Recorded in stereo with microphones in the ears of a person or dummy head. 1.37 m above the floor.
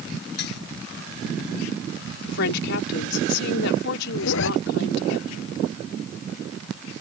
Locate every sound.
0.4 s dishes clattering: 65° left (ahead or behind)
2.3 s a woman speaking: 60° left (ahead or behind)
4.2 s a zipper: 75° left (ahead or behind)